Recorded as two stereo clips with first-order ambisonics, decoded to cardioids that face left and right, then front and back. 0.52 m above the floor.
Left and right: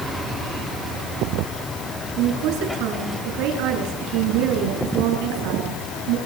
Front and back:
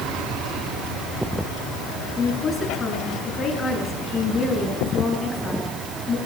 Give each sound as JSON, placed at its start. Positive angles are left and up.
{"t": 2.2, "sound": "a woman speaking", "azimuth_deg": -75, "distance_m": 7.0}